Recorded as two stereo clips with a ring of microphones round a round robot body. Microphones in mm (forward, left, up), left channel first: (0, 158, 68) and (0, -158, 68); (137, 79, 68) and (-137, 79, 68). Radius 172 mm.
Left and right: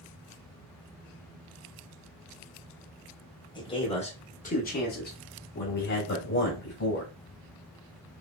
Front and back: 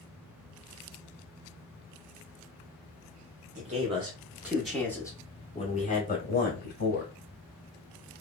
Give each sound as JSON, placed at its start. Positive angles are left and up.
{"t": 3.5, "sound": "a man speaking", "azimuth_deg": 150, "distance_m": 1.1}